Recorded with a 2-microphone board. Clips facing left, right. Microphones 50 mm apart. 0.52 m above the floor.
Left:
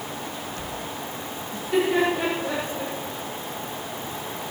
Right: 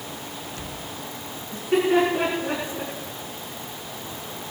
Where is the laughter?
55° right (ahead or behind), 6.5 m; by 2.9 s 45° right (ahead or behind), 6 m.